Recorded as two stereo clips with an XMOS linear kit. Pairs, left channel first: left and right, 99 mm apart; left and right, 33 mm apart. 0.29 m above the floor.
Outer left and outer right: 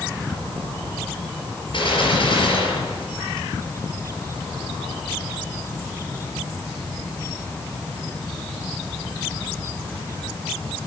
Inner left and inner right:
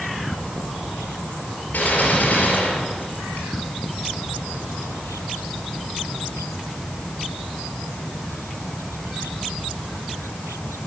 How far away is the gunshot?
About 4.5 m.